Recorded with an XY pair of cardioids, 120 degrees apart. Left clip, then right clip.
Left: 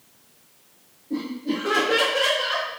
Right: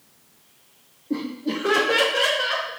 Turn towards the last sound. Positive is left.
turn(degrees=-50)